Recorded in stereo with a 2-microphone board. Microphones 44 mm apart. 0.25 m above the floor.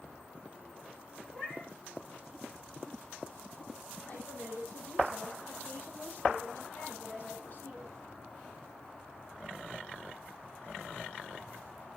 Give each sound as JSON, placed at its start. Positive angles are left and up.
{"t": 1.3, "sound": "a cat meowing", "side_deg": 10, "distance_m": 8.5}
{"t": 4.1, "sound": "a woman speaking", "side_deg": 40, "distance_m": 8.5}